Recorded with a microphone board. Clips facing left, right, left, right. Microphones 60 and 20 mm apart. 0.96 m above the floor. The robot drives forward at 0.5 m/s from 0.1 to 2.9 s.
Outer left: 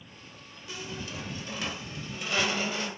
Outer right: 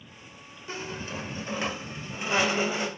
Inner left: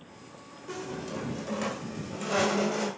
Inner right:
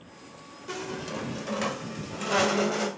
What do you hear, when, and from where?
0.7 s a squeak: 35° right (ahead or behind), 1.6 m; by 2.9 s 20° right (ahead or behind), 2.5 m